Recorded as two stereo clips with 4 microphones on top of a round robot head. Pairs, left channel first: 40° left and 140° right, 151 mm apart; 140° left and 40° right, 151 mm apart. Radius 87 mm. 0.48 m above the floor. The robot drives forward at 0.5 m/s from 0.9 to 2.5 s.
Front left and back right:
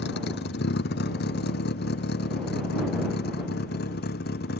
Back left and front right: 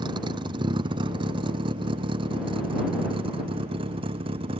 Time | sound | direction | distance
0.0 | a vehicle | 25° left | ?